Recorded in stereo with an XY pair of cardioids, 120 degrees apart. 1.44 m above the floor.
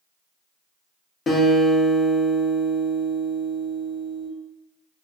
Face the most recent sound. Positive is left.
turn(degrees=35)